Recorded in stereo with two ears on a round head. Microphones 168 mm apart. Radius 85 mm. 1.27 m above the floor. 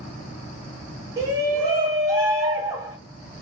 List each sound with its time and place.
1.2 s a shout: 20° right (ahead or behind), 1.7 m